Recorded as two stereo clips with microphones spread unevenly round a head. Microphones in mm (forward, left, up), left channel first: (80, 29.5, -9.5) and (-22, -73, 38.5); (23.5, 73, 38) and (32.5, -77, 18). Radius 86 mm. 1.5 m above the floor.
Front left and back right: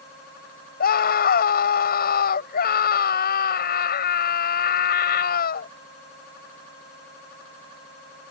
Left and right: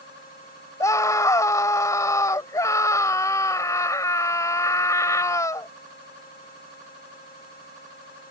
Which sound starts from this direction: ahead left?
A scream, at 0.8 s.